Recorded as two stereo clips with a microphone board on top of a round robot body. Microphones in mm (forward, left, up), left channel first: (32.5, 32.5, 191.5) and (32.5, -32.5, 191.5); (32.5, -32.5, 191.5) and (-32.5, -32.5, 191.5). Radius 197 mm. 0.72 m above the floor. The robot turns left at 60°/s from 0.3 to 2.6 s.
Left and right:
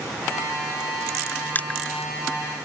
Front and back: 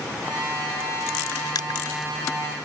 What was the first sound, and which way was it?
Crushing, 25° left.